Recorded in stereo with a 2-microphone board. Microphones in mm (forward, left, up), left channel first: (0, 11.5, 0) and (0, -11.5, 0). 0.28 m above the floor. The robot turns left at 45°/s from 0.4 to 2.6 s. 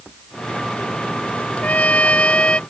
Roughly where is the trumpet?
Left.